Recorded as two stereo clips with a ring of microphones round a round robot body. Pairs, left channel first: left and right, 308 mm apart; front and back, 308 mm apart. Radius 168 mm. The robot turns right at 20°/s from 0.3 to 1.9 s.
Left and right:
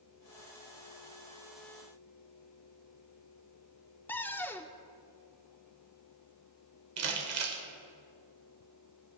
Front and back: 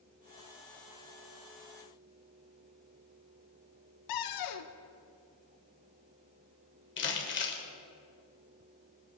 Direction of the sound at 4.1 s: 5° left.